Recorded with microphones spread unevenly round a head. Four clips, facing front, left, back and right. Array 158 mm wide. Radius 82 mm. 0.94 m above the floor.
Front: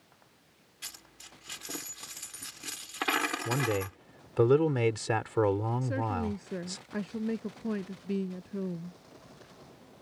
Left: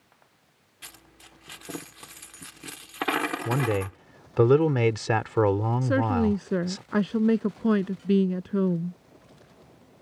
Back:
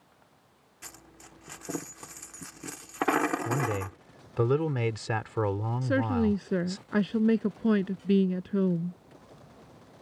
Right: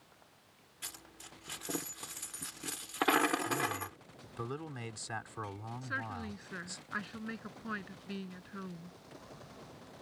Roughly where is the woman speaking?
Behind left.